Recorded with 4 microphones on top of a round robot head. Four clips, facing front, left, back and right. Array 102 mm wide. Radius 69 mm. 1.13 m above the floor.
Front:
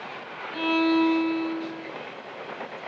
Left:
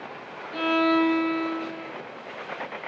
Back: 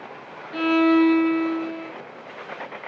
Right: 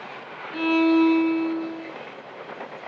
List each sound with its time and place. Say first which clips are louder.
0.5 s a violin: right 3 dB, back 5 dB; 175° left, 0.7 m